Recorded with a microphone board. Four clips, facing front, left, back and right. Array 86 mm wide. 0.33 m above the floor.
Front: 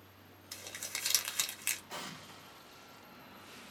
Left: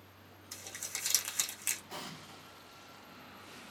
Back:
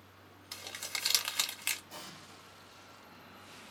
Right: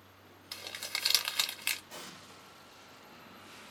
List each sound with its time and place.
0.5 s crumpling: 110° right, 0.7 m
1.9 s an explosion: 25° left, 1.0 m